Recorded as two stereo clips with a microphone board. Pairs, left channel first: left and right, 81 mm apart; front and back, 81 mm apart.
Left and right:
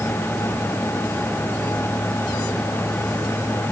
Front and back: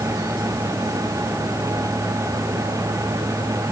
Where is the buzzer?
I don't hear a buzzer.